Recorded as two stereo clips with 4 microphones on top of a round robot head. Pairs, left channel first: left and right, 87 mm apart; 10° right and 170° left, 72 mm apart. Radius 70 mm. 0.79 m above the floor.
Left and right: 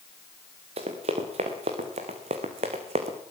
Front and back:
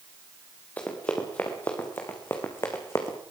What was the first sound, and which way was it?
Running footsteps, 85° right.